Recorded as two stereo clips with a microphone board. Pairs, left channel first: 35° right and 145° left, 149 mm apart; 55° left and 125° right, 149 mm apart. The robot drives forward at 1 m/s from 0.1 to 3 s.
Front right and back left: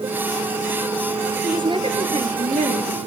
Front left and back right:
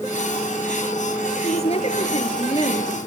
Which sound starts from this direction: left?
A woman speaking, at 1.4 s.